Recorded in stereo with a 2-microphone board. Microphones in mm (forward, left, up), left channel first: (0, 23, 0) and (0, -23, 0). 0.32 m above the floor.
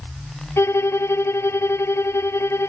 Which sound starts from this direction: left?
A violin, at 0.6 s.